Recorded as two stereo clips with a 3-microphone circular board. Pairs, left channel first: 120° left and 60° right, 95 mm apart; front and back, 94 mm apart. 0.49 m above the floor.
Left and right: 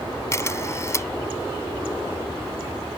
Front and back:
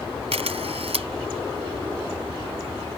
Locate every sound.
0.3 s a camera shutter: straight behind